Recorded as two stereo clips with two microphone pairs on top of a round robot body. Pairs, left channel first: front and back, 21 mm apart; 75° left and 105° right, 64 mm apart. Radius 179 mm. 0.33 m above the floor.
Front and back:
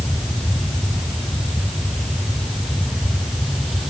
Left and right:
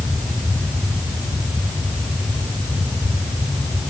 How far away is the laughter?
No laughter in this recording.